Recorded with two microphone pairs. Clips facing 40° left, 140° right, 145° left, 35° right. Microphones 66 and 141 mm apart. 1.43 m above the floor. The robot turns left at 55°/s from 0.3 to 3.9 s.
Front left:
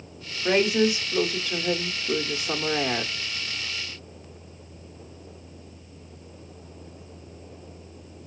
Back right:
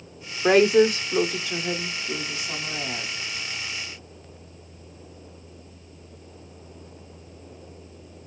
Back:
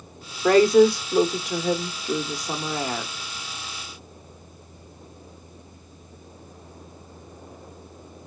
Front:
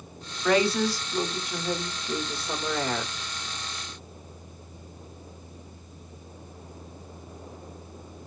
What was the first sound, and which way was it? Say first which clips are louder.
A woman speaking: back right 5 dB, back 8 dB; 160° right.